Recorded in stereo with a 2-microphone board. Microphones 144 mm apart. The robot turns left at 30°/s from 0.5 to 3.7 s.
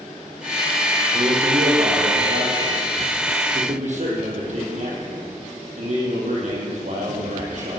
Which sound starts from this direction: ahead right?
A man speaking, at 1.1 s.